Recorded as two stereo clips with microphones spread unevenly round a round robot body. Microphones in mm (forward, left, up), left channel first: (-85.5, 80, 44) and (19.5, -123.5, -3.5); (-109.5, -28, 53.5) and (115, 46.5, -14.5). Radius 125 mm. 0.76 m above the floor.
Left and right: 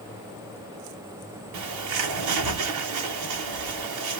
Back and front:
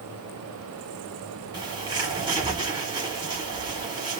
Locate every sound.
1.5 s a bird: 65° right, 1.1 m